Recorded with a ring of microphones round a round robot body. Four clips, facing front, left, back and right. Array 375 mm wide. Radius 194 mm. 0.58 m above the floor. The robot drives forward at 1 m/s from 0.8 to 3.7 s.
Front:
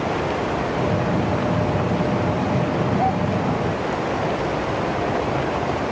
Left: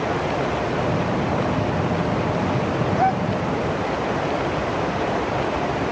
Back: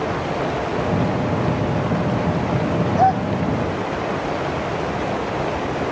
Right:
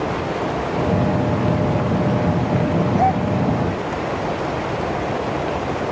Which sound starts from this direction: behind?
A gasp, at 3.0 s.